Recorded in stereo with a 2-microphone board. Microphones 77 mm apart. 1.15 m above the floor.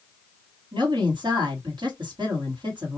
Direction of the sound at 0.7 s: 75° right (ahead or behind).